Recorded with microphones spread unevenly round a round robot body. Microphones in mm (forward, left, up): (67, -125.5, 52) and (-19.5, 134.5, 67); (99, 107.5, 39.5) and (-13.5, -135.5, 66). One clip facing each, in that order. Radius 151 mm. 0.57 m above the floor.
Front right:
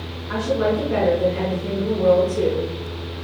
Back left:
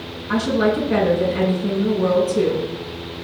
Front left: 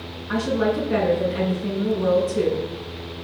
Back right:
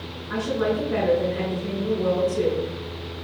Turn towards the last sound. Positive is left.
turn(degrees=75)